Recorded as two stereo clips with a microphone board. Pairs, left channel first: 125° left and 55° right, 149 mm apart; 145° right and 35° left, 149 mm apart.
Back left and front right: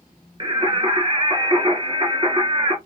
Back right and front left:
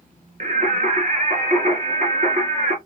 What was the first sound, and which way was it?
Singing, straight ahead.